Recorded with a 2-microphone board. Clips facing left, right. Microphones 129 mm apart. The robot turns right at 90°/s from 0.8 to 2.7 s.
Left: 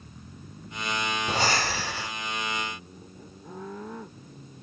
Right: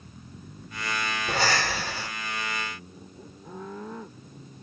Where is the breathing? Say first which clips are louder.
Right 1 dB; 125° left, 2.0 m; by 2.1 s 155° right, 2.0 m.